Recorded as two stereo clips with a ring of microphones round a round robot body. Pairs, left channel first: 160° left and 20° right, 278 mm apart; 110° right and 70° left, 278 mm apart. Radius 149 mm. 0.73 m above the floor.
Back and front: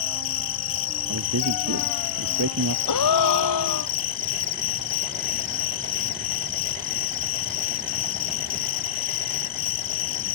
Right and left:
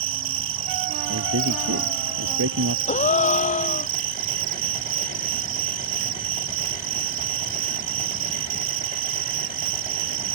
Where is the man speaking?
20° left.